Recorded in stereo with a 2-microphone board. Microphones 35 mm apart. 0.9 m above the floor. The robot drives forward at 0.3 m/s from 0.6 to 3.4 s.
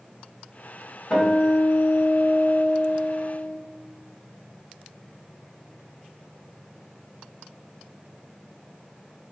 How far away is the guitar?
About 2.0 m.